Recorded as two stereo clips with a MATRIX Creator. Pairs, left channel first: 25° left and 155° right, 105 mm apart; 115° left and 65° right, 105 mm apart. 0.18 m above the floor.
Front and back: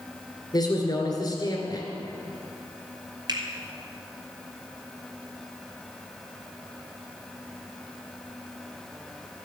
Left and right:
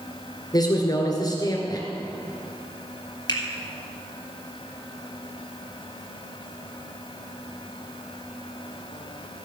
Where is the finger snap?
155° left, 2.5 m.